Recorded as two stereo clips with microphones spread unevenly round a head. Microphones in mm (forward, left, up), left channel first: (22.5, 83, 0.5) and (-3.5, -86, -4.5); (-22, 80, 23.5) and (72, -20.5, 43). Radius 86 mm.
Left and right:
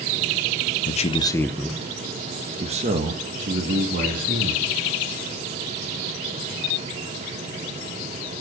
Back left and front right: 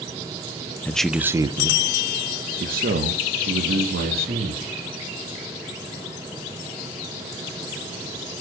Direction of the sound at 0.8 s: 70° left.